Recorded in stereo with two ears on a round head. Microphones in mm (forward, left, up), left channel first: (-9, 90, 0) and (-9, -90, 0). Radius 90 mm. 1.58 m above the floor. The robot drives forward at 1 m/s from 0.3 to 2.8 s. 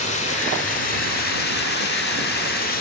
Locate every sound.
0.0 s running water: 35° left (ahead or behind), 2.5 m; by 2.8 s 50° left (ahead or behind), 1.9 m